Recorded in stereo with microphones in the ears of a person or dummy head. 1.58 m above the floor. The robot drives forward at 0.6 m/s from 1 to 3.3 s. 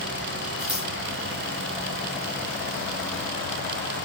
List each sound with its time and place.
0.6 s scissors: centre (ahead or behind), 4.5 m